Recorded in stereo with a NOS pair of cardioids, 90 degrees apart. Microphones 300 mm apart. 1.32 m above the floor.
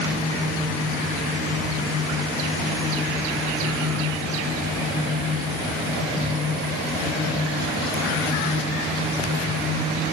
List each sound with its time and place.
Only background noise.